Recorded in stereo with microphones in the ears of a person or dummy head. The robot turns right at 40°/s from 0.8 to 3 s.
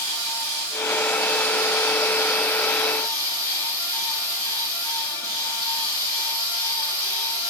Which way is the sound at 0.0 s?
110° right.